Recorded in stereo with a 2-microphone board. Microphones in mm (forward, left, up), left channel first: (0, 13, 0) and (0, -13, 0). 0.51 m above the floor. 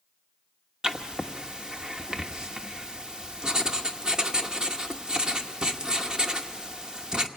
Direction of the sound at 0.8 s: 30° right (ahead or behind).